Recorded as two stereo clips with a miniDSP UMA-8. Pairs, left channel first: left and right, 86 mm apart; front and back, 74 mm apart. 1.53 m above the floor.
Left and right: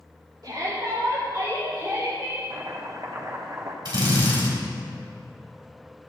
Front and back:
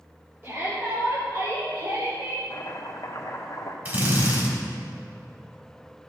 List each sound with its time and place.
0.4 s a shout: 125° right, 3.5 m; by 2.4 s 165° right, 1.2 m
2.5 s chopping: 40° right, 1.3 m
3.9 s a drill: 120° right, 3 m